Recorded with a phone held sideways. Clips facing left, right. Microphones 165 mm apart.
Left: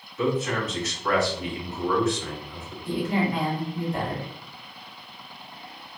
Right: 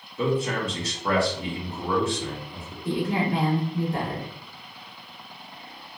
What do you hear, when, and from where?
0.2 s a man speaking: 30° right (ahead or behind), 0.9 m
2.9 s a woman speaking: 70° right (ahead or behind), 1.5 m